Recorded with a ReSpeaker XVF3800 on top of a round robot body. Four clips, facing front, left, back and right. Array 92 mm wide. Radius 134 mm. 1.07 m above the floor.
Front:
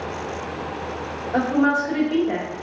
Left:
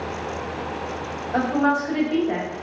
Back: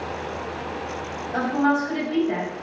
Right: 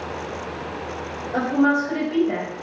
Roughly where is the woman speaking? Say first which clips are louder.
Right 1 dB, front 2 dB; ahead.